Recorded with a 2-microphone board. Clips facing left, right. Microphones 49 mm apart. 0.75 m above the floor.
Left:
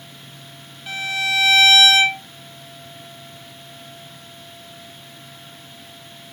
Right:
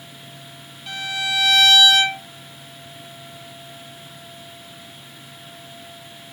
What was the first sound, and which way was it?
A violin, 25° left (ahead or behind).